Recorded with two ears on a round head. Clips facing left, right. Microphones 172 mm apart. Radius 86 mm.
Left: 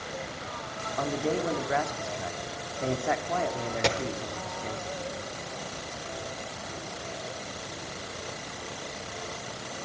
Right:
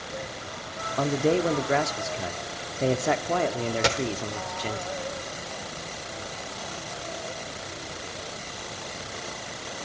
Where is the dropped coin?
5° right (ahead or behind), 0.7 m.